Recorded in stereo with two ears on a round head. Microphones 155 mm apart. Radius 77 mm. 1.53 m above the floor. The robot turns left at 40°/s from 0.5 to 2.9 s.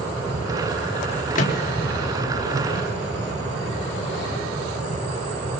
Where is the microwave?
45° left (ahead or behind), 4 m; by 4.4 s 70° left (ahead or behind), 4 m.